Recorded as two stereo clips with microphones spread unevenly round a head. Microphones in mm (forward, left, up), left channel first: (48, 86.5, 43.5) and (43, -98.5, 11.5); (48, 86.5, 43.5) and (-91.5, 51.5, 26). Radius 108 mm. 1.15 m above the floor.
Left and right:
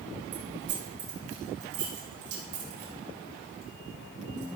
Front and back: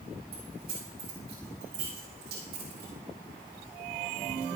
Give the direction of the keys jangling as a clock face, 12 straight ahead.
4 o'clock.